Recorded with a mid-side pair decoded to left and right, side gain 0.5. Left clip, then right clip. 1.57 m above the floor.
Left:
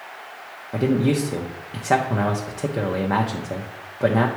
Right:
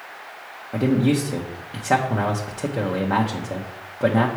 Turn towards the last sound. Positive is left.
turn(degrees=5)